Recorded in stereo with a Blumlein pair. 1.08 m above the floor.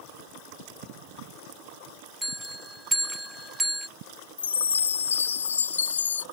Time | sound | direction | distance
2.2 | a bell | straight ahead | ?
4.4 | a chime | 70° left | ?